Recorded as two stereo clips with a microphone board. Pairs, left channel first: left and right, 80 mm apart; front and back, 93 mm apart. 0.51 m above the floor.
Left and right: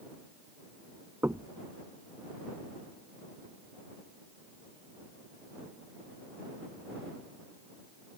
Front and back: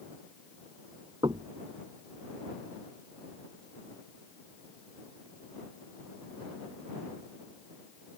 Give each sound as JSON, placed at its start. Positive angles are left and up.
{"t": 1.2, "sound": "knocking", "azimuth_deg": -150}